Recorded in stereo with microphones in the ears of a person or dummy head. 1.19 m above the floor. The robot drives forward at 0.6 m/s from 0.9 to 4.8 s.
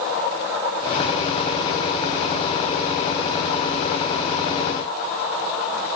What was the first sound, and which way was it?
Only background noise.